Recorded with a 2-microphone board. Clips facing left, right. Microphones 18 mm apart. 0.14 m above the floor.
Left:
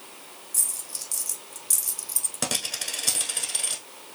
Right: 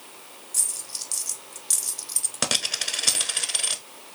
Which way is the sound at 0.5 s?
25° right (ahead or behind).